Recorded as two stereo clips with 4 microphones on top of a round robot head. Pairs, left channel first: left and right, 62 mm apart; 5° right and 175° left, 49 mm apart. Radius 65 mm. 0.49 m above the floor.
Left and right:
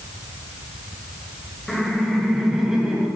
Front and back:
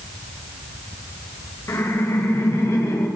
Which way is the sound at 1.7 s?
5° left.